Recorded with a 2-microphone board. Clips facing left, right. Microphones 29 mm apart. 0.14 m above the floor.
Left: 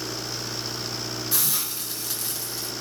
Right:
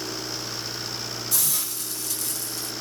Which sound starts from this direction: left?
A hiss, at 1.3 s.